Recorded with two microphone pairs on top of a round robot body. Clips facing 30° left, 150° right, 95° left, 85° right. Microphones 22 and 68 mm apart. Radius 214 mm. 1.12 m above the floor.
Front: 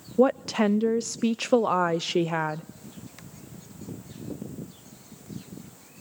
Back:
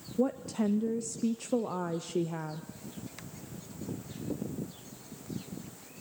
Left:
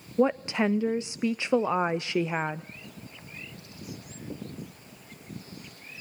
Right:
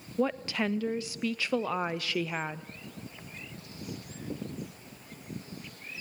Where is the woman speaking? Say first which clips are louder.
Front 9 dB, left 5 dB; 35° left, 0.6 m.